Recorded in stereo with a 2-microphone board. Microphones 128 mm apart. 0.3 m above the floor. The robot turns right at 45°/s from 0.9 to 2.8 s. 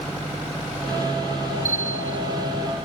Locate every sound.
1.6 s a bell: 70° right (ahead or behind); by 2.2 s 60° right (ahead or behind)